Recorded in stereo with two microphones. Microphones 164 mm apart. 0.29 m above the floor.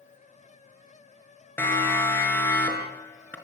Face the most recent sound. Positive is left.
turn(degrees=10)  # may be behind; listen again after turning